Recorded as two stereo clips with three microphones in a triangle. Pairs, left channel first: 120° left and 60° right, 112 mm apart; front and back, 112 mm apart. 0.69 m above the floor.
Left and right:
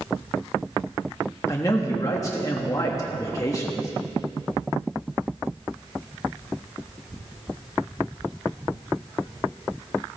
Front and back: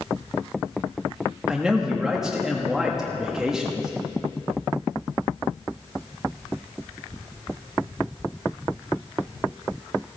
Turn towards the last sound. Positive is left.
turn(degrees=100)